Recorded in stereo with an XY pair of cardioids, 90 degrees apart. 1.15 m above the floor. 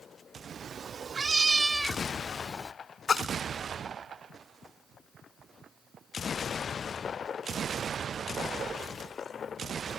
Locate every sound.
0.5 s a cat meowing: 65° right; by 2.7 s 20° left
3.1 s a splash: 45° left